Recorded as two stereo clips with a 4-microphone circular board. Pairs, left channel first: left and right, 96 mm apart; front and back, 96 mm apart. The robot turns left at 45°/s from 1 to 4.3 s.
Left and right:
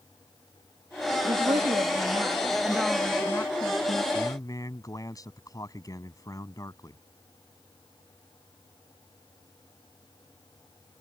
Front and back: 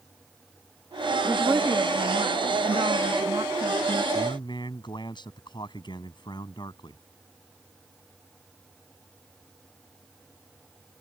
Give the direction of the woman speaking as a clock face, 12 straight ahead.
3 o'clock.